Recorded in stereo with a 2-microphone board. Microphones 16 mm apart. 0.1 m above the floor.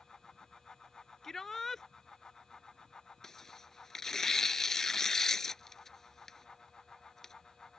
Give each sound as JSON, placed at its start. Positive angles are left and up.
{"t": 1.2, "sound": "a shout", "side_deg": 20}
{"t": 3.2, "sound": "tearing paper", "side_deg": 25}